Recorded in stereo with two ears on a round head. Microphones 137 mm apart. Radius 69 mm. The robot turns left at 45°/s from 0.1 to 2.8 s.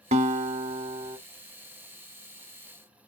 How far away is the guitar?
About 0.6 m.